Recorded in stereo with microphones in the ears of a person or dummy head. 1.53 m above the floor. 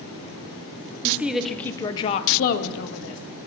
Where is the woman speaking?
10° right (ahead or behind), 0.8 m; by 3.2 s 75° left (ahead or behind), 0.8 m.